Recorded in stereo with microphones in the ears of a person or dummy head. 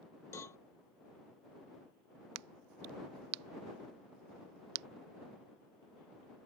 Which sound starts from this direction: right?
A crack, at 2.4 s.